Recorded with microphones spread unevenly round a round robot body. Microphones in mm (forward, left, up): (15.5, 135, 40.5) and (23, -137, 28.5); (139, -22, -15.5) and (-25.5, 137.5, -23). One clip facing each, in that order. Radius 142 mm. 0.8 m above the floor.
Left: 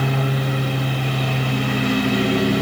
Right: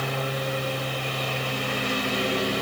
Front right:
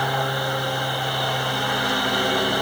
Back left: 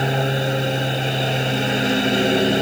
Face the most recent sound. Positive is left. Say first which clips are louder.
# left 6 dB, back left 5 dB
turn(degrees=65)